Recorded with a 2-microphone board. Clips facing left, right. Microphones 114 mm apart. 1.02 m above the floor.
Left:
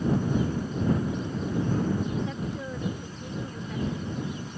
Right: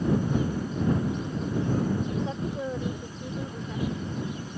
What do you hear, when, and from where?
2.2 s a woman speaking: 30° right (ahead or behind); by 4.0 s 10° right (ahead or behind)